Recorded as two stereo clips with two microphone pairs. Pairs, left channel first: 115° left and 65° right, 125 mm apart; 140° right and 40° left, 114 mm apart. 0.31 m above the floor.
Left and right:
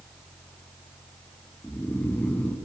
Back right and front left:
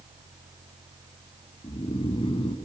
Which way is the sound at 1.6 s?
175° right.